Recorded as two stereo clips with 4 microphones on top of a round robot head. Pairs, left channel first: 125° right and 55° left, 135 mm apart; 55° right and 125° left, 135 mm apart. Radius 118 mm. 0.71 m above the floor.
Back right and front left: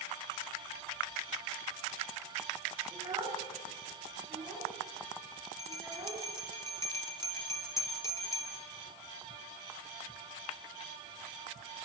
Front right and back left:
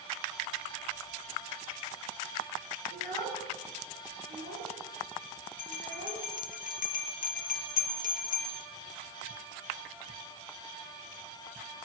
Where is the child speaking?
120° left, 6.5 m; by 6.3 s 130° left, 9 m.